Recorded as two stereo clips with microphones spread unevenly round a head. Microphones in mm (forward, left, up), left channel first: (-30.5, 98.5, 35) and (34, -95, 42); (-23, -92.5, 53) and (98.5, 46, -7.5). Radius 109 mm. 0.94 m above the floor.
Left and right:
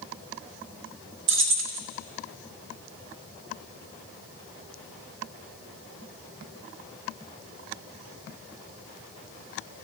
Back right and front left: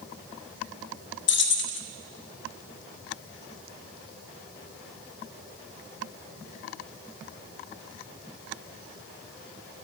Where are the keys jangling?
100° right, 0.7 m.